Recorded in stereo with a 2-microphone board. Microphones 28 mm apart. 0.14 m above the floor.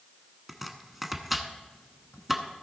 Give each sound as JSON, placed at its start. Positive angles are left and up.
{"t": 0.5, "sound": "chopping", "side_deg": -10, "distance_m": 1.0}